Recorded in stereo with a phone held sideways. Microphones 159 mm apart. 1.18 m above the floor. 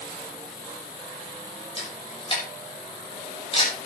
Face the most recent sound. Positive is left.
turn(degrees=35)  # may be behind; listen again after turning